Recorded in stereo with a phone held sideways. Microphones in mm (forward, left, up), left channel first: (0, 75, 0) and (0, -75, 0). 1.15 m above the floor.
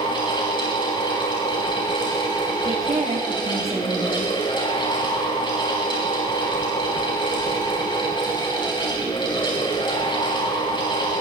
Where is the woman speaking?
45° right (ahead or behind), 6 m.